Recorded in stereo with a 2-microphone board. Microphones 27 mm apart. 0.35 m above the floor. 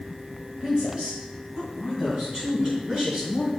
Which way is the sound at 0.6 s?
35° right (ahead or behind).